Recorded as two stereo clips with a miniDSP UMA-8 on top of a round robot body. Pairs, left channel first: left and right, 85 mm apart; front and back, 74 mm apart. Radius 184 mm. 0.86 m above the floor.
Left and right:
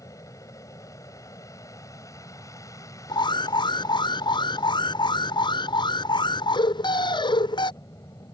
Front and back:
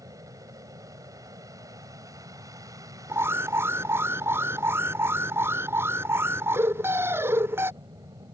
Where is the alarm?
120° left.